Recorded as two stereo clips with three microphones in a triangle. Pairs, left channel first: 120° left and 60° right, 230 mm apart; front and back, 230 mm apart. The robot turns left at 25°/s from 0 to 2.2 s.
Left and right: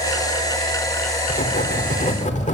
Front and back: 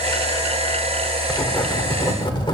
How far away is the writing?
About 1.4 m.